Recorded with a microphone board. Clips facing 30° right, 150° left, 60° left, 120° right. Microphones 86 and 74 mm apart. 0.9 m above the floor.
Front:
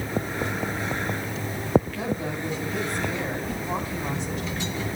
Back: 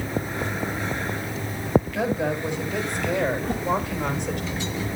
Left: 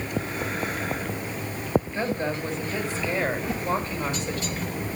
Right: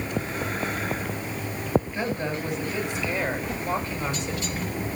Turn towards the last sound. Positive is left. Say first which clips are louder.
# back 5 dB, left 2 dB
turn(degrees=115)